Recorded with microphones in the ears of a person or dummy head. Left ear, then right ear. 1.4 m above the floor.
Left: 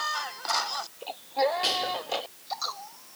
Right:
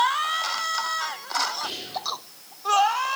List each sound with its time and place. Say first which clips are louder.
1.6 s whispering: left 4 dB; 65° left (ahead or behind), 4.5 m